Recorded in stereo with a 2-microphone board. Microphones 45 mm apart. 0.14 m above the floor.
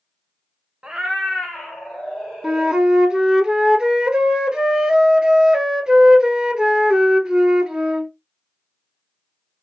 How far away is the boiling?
No boiling in this recording.